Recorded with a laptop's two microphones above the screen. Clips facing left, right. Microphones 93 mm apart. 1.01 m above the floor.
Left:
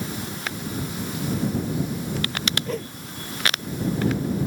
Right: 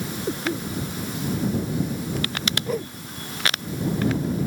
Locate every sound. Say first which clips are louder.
0.3 s a cough: right 5 dB; 60° right (ahead or behind)
2.7 s a whoosh: right 2 dB; 10° right (ahead or behind)